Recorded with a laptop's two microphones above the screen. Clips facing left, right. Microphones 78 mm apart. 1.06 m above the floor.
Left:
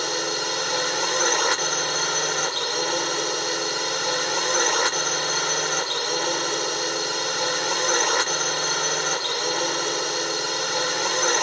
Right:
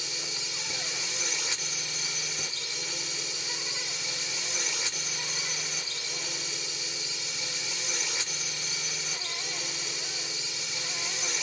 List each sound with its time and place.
0.0 s a drone: 70° left (ahead or behind)